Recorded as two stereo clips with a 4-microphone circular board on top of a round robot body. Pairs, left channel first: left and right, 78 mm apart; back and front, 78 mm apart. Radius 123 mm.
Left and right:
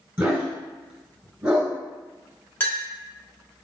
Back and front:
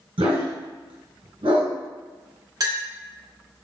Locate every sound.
0.2 s a dog barking: 15° right, 1.3 m
2.6 s a clink: 30° left, 1.2 m